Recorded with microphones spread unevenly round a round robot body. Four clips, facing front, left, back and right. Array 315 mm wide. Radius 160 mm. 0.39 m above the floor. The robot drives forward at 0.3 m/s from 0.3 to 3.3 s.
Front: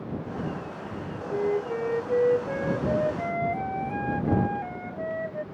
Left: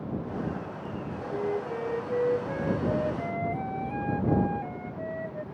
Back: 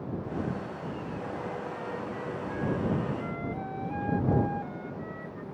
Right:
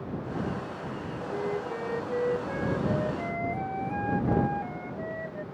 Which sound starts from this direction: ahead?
A flute, at 1.3 s.